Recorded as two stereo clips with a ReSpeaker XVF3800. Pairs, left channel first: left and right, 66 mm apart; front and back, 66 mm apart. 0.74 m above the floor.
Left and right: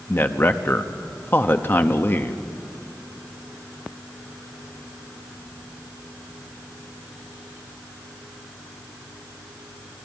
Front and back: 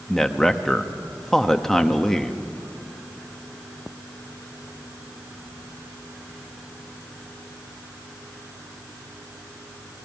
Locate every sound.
0.1 s a man speaking: 80° left, 0.9 m